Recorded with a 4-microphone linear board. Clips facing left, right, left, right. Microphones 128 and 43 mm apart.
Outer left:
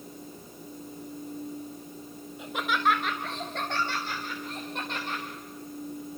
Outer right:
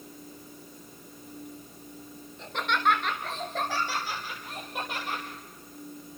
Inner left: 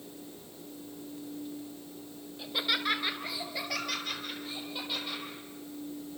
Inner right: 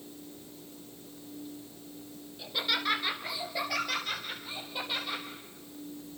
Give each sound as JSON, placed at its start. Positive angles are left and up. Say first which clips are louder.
{"t": 2.4, "sound": "laughter", "louder": "even, even", "side_deg": 10, "distance_m": 1.3}